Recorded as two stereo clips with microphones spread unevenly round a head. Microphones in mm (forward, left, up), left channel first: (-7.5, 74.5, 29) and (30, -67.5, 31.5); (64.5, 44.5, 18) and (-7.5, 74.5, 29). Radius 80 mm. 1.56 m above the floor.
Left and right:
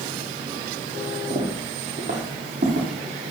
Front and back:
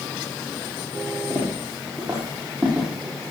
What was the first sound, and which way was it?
Footsteps, 130° right.